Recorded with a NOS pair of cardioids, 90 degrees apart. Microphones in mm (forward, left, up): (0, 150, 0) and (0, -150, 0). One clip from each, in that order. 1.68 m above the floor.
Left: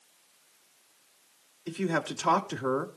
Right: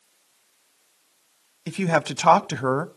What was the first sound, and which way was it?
A man speaking, 70° right.